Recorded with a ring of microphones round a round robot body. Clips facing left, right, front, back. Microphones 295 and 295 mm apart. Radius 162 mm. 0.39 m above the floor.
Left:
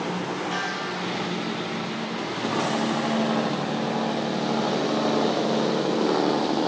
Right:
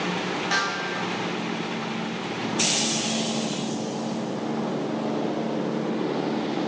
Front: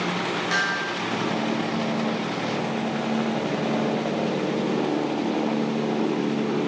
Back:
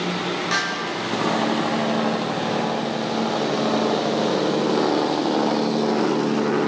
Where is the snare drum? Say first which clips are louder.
Even, back 2 dB; 105° right, 8.5 m.